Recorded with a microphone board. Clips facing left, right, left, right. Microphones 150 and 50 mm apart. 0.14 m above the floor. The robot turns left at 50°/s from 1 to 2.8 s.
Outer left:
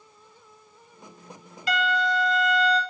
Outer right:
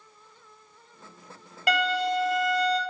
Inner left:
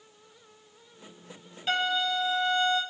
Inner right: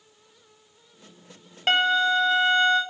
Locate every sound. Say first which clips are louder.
1.7 s a violin: even, inner right 7 dB; 75° right, 0.6 m; by 2.8 s 130° right, 0.6 m